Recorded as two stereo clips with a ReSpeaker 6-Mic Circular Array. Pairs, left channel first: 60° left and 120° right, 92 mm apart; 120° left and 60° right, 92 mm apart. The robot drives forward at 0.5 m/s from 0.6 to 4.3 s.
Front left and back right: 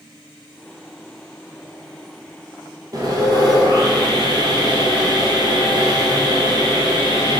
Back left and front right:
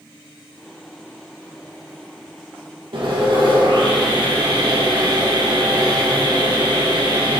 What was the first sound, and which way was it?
Sawing, 75° right.